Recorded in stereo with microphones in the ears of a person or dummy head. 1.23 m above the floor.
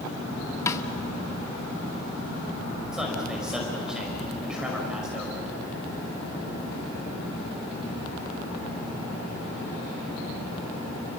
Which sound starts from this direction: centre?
A man speaking, at 2.9 s.